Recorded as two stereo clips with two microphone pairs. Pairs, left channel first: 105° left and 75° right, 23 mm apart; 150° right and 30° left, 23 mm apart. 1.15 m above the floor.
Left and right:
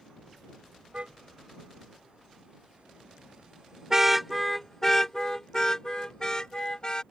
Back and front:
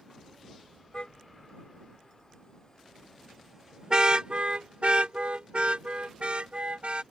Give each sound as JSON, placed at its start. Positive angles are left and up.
{"t": 0.9, "sound": "a car horn", "azimuth_deg": -110}